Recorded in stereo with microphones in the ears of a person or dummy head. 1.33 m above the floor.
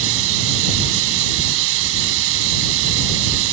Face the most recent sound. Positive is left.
turn(degrees=-80)